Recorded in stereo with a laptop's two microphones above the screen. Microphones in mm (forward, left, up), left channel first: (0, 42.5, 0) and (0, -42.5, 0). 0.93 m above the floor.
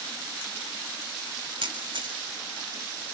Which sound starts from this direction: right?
A camera shutter, at 1.6 s.